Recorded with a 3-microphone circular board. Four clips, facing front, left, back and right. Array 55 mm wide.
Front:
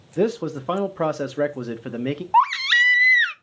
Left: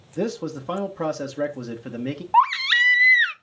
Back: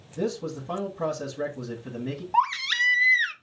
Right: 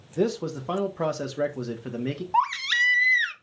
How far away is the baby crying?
About 0.5 m.